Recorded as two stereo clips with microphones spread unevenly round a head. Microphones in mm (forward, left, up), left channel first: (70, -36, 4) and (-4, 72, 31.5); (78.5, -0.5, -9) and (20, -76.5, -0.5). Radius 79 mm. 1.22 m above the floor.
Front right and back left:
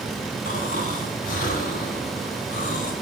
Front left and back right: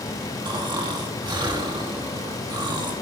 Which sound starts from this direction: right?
Snoring, at 0.5 s.